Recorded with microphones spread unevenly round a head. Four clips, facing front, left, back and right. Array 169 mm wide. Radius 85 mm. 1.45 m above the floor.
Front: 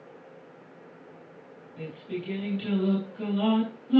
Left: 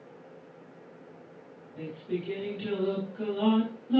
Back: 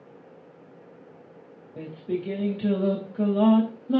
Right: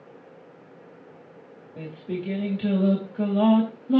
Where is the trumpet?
I don't hear a trumpet.